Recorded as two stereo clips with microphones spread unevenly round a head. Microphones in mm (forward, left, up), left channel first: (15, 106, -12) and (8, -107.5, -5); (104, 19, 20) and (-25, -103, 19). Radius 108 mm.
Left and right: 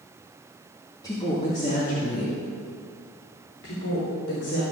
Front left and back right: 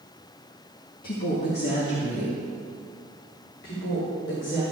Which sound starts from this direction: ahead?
A woman speaking, at 1.0 s.